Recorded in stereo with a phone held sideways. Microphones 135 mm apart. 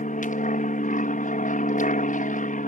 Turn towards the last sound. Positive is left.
turn(degrees=65)  # may be behind; listen again after turning